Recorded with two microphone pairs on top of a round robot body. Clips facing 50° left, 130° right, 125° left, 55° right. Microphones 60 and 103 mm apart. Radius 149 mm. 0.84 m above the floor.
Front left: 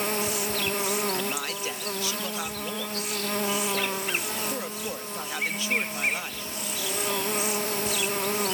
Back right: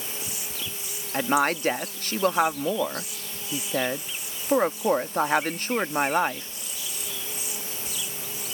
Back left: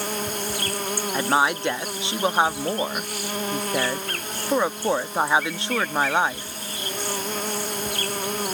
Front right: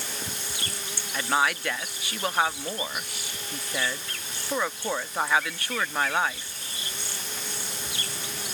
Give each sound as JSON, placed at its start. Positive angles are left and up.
{"t": 0.0, "sound": "an insect", "azimuth_deg": 85}
{"t": 1.1, "sound": "a woman speaking", "azimuth_deg": -170}